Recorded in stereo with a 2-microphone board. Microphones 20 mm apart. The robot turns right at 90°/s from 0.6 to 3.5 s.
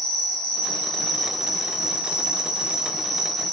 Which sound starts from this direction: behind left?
An insect, at 0.0 s.